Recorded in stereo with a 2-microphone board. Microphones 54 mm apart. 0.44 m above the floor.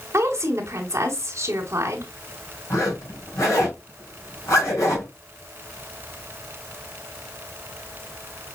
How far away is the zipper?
About 3.5 m.